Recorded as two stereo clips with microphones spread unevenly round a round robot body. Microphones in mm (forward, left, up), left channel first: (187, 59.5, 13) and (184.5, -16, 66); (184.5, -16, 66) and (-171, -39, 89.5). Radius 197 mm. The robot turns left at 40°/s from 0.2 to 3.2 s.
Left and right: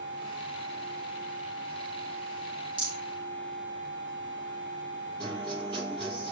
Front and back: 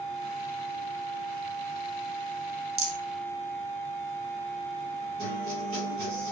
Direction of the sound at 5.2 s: 120° right.